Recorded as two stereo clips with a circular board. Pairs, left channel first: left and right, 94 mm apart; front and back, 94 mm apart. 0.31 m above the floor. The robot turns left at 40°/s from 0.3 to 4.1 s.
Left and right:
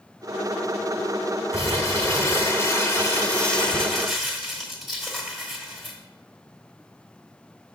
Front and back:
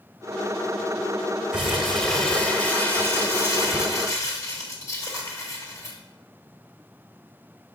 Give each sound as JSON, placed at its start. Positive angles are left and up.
{"t": 1.5, "sound": "crumpling", "azimuth_deg": 105, "distance_m": 1.2}